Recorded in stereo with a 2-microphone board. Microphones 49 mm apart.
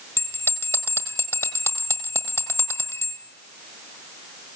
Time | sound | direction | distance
0.2 | a bell | 75° left (ahead or behind) | 1.8 m